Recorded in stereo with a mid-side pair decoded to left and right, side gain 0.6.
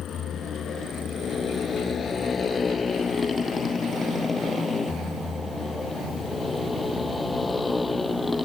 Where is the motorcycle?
50° left; by 8.5 s 15° left.